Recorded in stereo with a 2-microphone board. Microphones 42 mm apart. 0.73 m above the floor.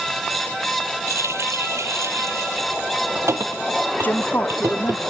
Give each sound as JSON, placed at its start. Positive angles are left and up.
{"t": 1.1, "sound": "a running tap", "side_deg": -80}
{"t": 4.0, "sound": "a woman speaking", "side_deg": 45}